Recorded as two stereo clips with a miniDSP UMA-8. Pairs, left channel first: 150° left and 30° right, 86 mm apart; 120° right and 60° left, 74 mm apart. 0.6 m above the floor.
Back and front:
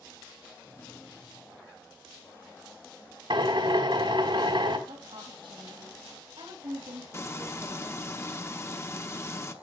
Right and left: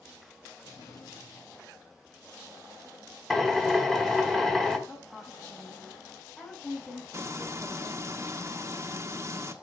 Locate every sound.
0.6 s a drawer: 145° right, 3.5 m
3.3 s a drill: 35° right, 1.8 m
4.9 s a woman speaking: 50° right, 4 m
7.1 s frying: 100° left, 1.0 m